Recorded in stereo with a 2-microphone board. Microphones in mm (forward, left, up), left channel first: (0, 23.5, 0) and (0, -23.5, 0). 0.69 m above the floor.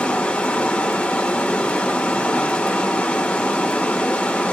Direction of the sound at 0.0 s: 25° left (ahead or behind).